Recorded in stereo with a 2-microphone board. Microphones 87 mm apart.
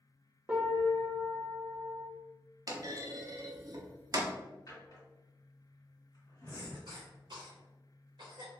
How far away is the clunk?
About 0.6 m.